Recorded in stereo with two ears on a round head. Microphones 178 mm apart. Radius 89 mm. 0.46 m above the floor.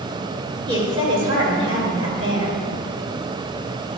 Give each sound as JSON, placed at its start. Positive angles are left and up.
{"t": 0.7, "sound": "a woman speaking", "side_deg": -25, "distance_m": 2.0}